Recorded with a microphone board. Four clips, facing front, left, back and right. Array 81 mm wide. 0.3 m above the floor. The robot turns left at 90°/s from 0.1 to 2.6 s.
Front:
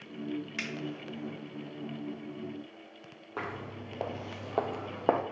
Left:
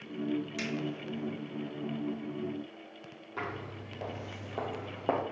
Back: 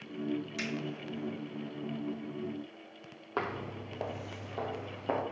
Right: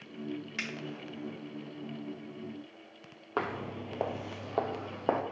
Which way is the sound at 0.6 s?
35° right.